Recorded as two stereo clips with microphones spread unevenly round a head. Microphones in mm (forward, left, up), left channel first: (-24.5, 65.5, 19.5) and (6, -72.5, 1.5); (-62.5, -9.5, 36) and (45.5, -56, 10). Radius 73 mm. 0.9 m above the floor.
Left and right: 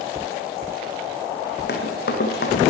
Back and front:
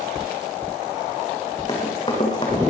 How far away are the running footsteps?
About 2.5 m.